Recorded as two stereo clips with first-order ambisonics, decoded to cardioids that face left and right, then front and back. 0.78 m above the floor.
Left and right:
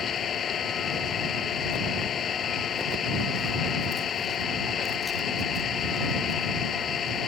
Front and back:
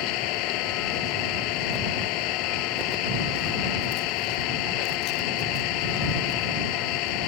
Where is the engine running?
25° left.